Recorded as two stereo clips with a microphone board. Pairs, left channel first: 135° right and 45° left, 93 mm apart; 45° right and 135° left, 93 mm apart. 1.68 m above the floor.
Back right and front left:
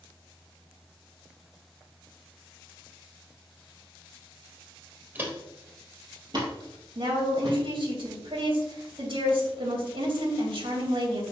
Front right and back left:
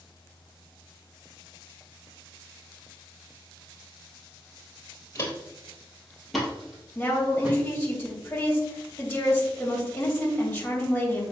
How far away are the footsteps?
About 2 m.